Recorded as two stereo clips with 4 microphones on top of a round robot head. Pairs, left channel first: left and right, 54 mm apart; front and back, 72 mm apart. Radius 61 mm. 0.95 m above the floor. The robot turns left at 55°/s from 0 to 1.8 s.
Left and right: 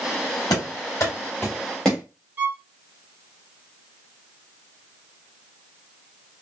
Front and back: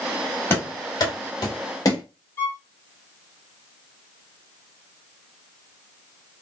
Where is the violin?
45° right, 1.2 m.